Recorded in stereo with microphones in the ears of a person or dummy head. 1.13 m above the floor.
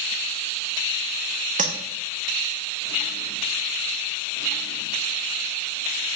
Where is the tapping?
35° right (ahead or behind), 1.6 m.